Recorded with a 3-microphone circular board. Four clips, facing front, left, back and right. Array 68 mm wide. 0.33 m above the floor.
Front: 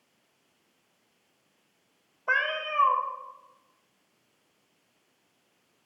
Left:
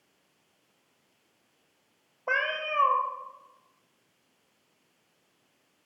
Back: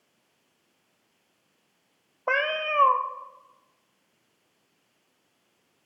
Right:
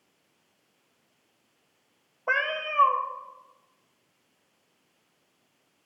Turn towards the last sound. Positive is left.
turn(degrees=-175)